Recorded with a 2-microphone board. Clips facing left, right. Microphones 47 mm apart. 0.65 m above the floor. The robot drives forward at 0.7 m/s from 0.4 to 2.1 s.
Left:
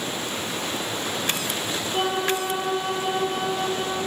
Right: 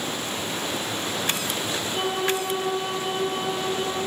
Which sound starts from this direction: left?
A violin, at 1.9 s.